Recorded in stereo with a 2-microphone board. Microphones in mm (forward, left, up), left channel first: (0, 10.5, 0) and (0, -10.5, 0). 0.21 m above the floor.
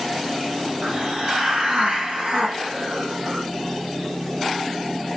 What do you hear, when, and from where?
0.8 s a hiss: 55° right (ahead or behind), 1.4 m